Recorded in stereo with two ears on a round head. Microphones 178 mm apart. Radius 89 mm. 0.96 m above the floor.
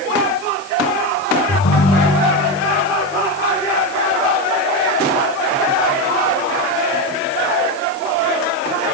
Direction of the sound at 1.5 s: 80° left.